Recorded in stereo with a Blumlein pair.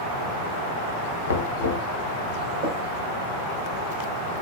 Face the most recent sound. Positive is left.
turn(degrees=-50)